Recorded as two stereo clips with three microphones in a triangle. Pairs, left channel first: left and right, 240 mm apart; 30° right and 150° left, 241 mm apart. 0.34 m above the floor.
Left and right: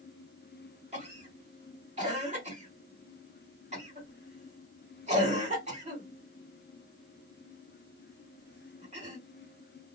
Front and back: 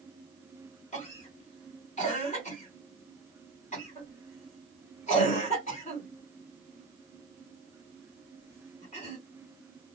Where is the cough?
60° right, 1.7 m.